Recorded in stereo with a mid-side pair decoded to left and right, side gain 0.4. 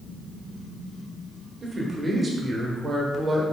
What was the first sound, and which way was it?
A man speaking, 35° right.